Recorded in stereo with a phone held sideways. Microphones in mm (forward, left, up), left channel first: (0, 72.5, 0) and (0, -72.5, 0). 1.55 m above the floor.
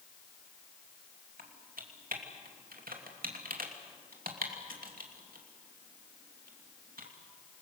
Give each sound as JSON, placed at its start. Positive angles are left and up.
{"t": 1.4, "sound": "typing on a keyboard", "side_deg": -80, "distance_m": 2.5}